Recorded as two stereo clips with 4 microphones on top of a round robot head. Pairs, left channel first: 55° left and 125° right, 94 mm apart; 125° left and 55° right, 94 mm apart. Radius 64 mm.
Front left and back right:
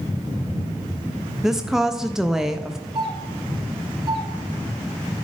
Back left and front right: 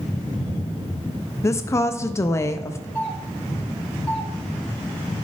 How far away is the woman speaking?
About 0.5 m.